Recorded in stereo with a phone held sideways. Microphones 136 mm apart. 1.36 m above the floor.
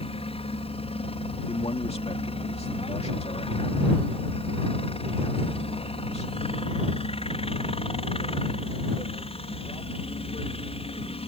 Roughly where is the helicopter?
Left.